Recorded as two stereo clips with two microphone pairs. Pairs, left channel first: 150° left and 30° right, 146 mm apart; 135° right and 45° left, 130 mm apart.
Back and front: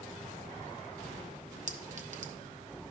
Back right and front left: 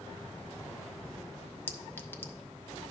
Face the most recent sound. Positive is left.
turn(degrees=-60)